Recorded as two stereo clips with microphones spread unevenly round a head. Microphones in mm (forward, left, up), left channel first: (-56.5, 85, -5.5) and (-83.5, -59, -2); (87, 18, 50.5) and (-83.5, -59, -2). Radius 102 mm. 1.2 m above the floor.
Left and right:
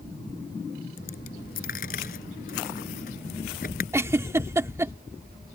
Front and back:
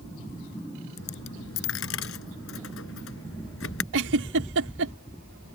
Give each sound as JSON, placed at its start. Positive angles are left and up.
{"t": 1.0, "sound": "a dropped coin", "azimuth_deg": 35}
{"t": 3.9, "sound": "a giggle", "azimuth_deg": -170}